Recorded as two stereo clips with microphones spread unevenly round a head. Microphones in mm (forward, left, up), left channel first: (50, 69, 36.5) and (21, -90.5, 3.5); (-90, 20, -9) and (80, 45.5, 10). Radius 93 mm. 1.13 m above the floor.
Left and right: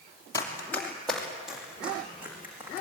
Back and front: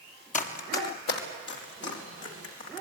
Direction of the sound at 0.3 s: 145° left.